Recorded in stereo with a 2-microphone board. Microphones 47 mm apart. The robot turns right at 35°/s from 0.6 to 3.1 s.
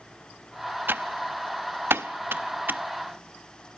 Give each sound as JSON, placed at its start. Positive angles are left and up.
{"t": 0.9, "sound": "typing on a keyboard", "side_deg": -50, "distance_m": 0.9}